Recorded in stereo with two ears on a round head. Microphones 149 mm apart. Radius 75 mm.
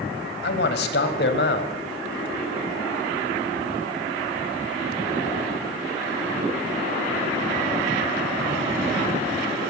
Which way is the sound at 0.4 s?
65° left (ahead or behind).